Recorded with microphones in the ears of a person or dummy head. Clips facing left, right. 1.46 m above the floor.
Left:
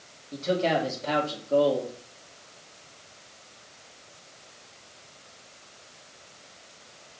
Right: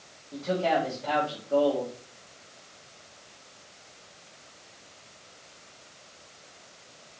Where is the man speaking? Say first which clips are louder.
Left 1 dB; 20° left (ahead or behind), 2.5 m.